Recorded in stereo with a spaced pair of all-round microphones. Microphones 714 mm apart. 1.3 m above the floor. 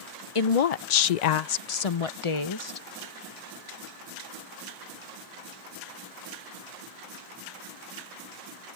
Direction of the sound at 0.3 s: 50° left (ahead or behind).